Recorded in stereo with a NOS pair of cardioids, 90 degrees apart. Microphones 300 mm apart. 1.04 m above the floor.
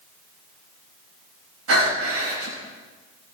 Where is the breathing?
50° right, 6 m.